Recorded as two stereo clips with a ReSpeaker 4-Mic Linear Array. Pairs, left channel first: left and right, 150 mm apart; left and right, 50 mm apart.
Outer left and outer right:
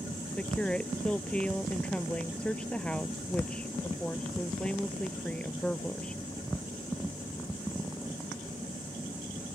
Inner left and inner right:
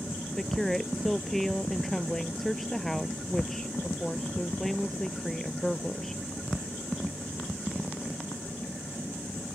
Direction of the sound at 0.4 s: 5° left (ahead or behind).